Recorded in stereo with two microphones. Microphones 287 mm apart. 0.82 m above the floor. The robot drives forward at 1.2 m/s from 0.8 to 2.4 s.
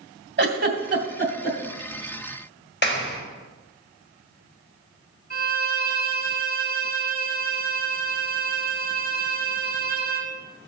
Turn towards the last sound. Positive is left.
turn(degrees=35)  # may be behind; listen again after turning